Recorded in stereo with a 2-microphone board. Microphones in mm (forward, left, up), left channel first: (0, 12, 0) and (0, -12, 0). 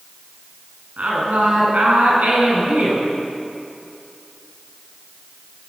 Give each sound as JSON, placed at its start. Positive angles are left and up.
{"t": 1.0, "sound": "a woman speaking", "side_deg": -85, "distance_m": 9.5}